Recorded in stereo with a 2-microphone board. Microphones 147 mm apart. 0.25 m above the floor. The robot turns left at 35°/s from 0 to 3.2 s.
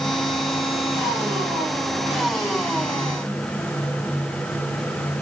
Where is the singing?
I don't hear singing.